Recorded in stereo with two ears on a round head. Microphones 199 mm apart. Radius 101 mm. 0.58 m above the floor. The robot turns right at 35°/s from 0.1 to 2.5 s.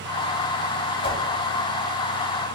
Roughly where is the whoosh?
Left.